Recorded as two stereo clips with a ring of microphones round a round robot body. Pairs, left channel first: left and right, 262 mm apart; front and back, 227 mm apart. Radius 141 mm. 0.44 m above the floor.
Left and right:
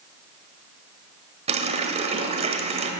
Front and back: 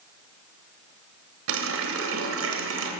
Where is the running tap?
155° right, 1.3 m.